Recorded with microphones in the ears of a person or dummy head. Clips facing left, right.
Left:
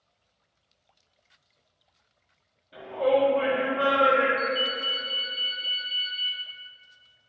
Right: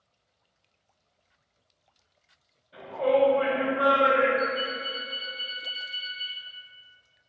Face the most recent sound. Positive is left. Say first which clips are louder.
# even
turn(degrees=40)  # may be behind; listen again after turning